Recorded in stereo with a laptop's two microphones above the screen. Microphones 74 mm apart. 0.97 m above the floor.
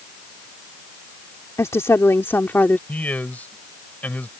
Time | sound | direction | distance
1.6 | a woman speaking | 40° left (ahead or behind) | ?
2.9 | a man speaking | 20° left (ahead or behind) | ?